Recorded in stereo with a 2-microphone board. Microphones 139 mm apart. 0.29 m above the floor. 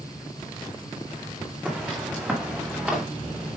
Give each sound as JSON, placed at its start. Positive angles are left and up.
{"t": 1.6, "sound": "footsteps", "side_deg": -10, "distance_m": 4.0}